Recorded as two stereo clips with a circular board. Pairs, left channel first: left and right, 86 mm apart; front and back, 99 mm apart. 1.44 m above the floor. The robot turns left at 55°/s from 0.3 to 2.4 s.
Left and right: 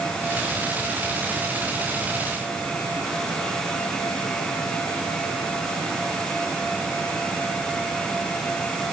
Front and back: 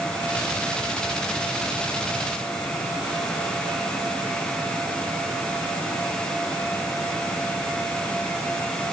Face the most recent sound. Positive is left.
No sound to turn to.